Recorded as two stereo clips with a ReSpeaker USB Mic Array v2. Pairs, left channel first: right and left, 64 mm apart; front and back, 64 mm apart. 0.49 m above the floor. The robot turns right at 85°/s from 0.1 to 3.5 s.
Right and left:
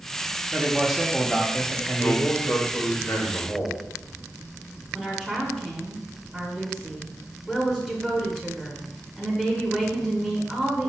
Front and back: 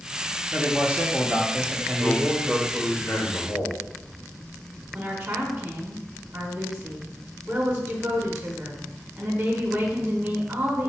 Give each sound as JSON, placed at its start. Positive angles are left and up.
{"t": 0.5, "sound": "a man speaking", "azimuth_deg": 125, "distance_m": 0.7}
{"t": 2.0, "sound": "a man speaking", "azimuth_deg": -145, "distance_m": 1.3}
{"t": 4.9, "sound": "a woman speaking", "azimuth_deg": 155, "distance_m": 0.9}